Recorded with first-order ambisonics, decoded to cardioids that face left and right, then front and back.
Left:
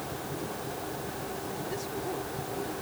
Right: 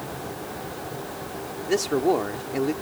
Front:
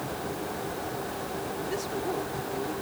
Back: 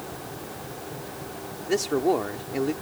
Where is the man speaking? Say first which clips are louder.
Right 17 dB, back 11 dB; 125° right.